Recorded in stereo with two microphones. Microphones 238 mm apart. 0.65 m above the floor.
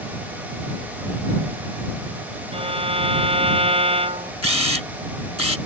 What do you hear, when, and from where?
2.5 s a violin: 25° right (ahead or behind)
4.4 s a camera shutter: 85° left